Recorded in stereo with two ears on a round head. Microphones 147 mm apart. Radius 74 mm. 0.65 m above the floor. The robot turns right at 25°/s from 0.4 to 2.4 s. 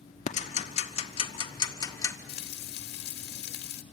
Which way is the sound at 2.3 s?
65° left (ahead or behind).